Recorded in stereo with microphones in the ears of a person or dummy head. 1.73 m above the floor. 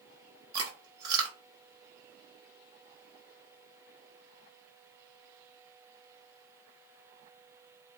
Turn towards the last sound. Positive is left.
turn(degrees=-25)  # may be behind; listen again after turning